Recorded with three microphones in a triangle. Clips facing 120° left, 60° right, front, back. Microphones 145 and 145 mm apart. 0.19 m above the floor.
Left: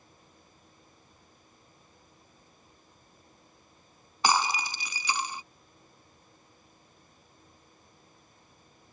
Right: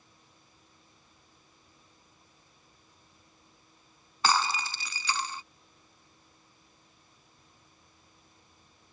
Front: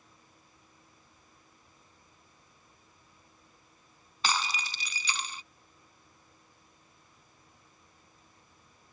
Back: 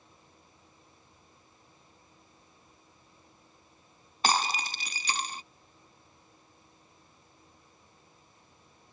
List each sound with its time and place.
4.2 s breaking glass: 175° right